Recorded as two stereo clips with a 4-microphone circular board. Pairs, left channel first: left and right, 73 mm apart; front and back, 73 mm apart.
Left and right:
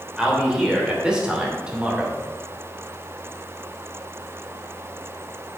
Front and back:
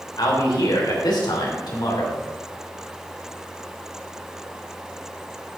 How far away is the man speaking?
About 3 m.